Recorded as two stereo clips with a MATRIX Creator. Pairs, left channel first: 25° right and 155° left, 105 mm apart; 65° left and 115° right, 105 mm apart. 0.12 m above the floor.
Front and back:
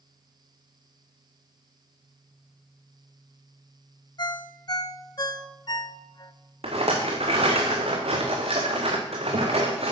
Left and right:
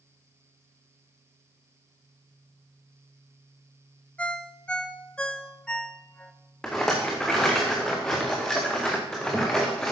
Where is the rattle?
150° left, 2.5 m.